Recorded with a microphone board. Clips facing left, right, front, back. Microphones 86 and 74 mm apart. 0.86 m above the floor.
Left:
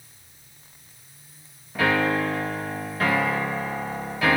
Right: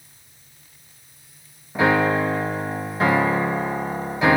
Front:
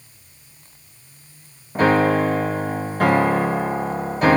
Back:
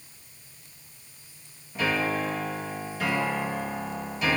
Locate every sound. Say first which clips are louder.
1.8 s a piano: right 4 dB, front 11 dB; 25° right, 1.0 m